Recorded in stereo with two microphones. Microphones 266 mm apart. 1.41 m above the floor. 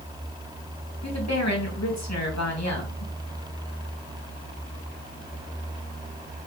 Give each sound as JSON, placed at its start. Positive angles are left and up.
{"t": 1.0, "sound": "a woman speaking", "side_deg": 80, "distance_m": 2.5}